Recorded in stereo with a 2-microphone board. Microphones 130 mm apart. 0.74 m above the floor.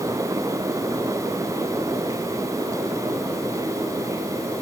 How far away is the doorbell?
I don't hear a doorbell.